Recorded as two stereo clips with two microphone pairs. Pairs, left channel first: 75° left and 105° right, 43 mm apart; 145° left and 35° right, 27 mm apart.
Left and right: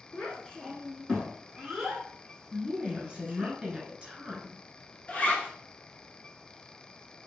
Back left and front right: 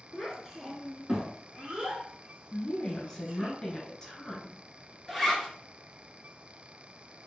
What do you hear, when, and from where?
0.1 s a child speaking: 45° left, 1.2 m; by 3.5 s 45° right, 1.9 m
2.5 s a woman speaking: 150° right, 1.2 m
5.1 s a zipper: 50° left, 0.8 m